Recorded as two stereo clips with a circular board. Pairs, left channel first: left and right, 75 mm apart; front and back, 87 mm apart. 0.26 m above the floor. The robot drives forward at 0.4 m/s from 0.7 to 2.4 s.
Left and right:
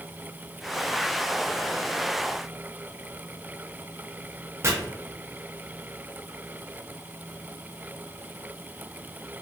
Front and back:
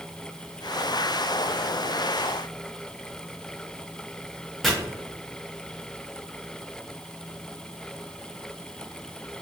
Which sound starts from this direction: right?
Chopping, at 4.6 s.